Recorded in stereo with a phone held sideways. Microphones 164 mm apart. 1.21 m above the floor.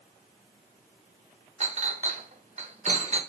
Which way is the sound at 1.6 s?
45° right (ahead or behind).